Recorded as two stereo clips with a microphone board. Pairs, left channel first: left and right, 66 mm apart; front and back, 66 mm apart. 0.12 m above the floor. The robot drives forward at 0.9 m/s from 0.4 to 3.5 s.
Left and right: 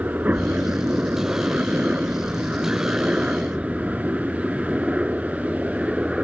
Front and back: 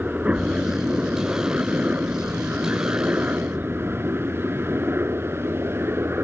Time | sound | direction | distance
0.0 | a helicopter | 130° right | ?